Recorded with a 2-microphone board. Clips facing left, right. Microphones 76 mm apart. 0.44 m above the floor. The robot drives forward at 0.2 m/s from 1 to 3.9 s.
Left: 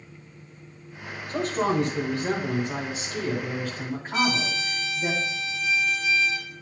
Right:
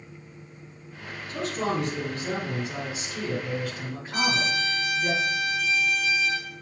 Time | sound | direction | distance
1.3 | a man speaking | 55° left (ahead or behind) | 2 m
4.1 | a trumpet | 75° right (ahead or behind) | 4 m